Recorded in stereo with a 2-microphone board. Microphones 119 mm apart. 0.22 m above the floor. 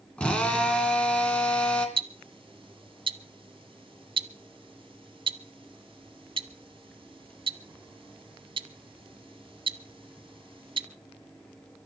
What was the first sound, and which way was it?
A drill, 10° left (ahead or behind).